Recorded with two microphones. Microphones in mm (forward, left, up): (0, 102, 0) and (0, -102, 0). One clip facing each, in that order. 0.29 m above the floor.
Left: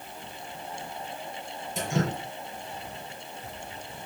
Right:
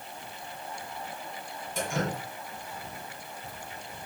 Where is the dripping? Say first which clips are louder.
Left 2 dB; 20° left (ahead or behind), 7 m.